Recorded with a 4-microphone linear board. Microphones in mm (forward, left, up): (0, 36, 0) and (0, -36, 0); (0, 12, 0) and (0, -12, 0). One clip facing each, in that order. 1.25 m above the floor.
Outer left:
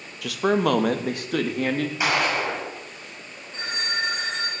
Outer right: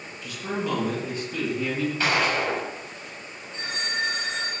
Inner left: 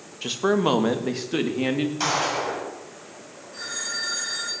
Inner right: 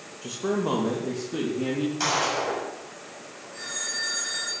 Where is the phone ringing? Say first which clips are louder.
Outer left 1 dB, inner left 1 dB; 40° left (ahead or behind), 8.5 m.